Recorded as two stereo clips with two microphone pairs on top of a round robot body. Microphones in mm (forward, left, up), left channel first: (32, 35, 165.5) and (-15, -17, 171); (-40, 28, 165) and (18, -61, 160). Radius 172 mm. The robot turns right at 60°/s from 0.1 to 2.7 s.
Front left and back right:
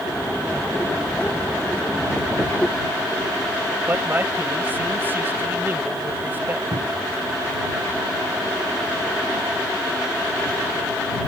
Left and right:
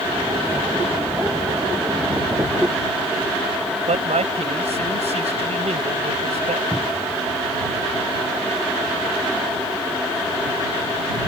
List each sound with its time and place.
3.9 s a man speaking: 70° right
6.7 s a cupboard door: 155° right